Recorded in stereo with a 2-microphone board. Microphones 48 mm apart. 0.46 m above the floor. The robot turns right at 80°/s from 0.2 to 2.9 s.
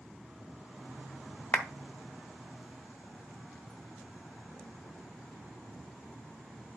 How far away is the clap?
About 1.0 m.